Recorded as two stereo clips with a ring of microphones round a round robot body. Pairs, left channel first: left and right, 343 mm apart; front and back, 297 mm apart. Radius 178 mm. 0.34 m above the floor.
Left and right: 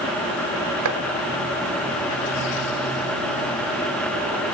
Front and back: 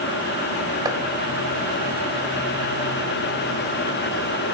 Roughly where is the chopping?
Right.